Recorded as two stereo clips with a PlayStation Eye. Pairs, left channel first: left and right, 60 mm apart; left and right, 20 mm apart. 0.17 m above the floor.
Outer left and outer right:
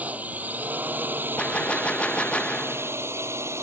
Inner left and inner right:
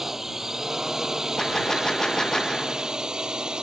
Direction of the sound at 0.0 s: 20° right (ahead or behind).